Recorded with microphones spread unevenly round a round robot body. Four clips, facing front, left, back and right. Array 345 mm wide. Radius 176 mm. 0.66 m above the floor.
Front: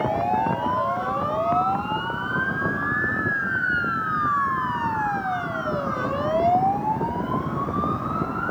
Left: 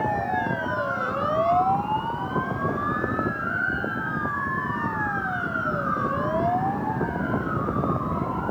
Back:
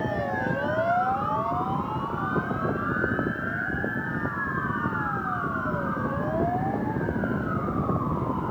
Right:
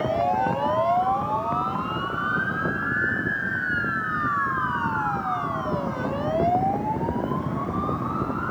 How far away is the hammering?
I don't hear hammering.